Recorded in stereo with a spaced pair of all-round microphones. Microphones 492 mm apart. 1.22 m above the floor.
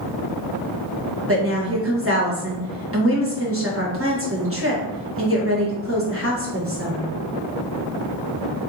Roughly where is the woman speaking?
Right.